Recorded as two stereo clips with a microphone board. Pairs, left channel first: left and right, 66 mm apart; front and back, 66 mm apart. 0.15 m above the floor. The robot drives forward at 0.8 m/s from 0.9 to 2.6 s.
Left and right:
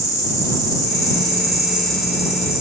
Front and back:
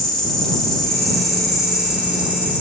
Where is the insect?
85° left, 2.5 m; by 2.6 s 115° left, 3 m.